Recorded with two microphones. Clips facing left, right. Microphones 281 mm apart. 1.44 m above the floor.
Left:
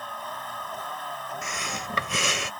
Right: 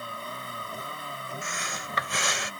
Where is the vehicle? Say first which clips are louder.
Even; 30° right (ahead or behind).